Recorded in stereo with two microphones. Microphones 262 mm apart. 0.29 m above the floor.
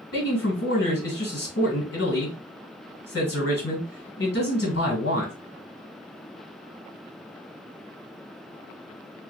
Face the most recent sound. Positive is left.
turn(degrees=55)  # may be behind; listen again after turning